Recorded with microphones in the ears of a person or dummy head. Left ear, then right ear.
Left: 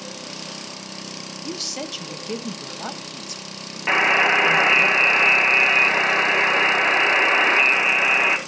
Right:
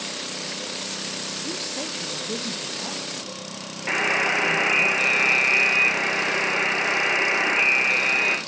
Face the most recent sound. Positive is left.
turn(degrees=40)  # may be behind; listen again after turning